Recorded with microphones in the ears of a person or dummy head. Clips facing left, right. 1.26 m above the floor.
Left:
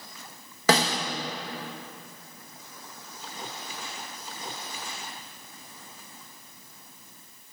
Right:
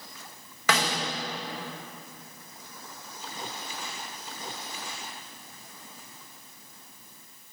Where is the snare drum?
30° left (ahead or behind), 0.9 m.